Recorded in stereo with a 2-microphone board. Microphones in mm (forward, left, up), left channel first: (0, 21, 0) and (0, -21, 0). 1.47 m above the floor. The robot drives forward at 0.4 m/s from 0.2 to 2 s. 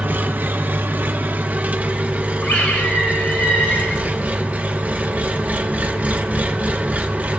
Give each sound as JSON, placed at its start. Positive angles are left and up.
{"t": 0.0, "sound": "an engine running", "side_deg": -45, "distance_m": 0.7}
{"t": 2.4, "sound": "a scream", "side_deg": 75, "distance_m": 3.0}